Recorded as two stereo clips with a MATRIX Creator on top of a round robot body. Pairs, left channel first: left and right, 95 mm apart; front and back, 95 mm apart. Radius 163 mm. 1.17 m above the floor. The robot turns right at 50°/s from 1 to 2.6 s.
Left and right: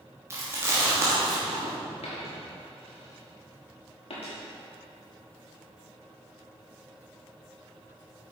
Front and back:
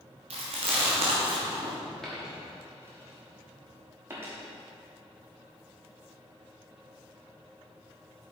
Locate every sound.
0.3 s chewing: 155° right, 1.2 m; by 1.7 s 120° right, 1.2 m
2.0 s a dropped coin: 85° left, 1.1 m; by 4.3 s 115° left, 1.1 m